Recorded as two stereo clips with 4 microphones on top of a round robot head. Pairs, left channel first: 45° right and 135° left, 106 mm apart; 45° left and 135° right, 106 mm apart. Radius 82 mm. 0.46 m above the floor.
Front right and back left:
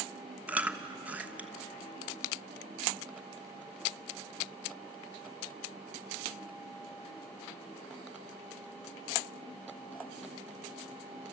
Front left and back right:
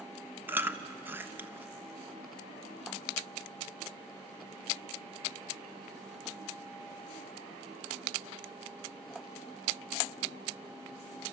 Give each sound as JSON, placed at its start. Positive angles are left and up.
{"t": 0.5, "sound": "chewing", "azimuth_deg": -170, "distance_m": 1.2}